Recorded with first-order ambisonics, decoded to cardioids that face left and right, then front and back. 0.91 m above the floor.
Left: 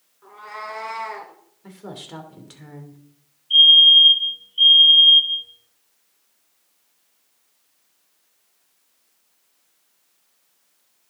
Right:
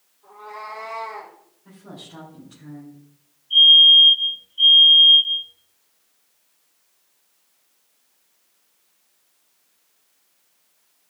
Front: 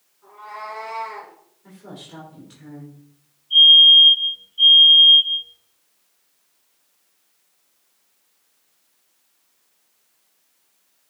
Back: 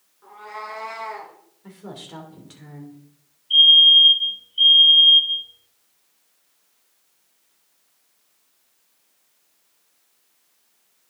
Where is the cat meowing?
110° left, 3 m; by 1.3 s 95° left, 3.5 m.